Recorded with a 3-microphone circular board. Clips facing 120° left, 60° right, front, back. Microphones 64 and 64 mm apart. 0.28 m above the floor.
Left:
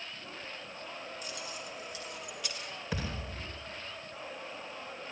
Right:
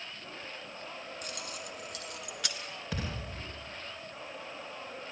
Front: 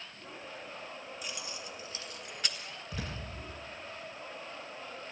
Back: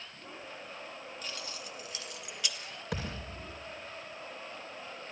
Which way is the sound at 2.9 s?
155° right.